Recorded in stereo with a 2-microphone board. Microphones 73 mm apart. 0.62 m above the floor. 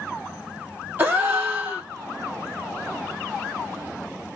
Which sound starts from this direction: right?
A gasp, at 1.0 s.